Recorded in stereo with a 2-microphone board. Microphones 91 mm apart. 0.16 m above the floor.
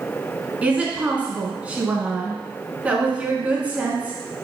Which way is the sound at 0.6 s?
15° right (ahead or behind).